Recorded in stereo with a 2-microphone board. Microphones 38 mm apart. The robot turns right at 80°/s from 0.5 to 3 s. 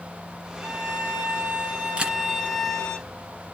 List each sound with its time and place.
0.6 s a violin: 135° right, 6 m; by 3.0 s 55° left, 6 m
2.0 s a camera shutter: 30° right (ahead or behind), 2.0 m; by 2.2 s 20° right (ahead or behind), 2.0 m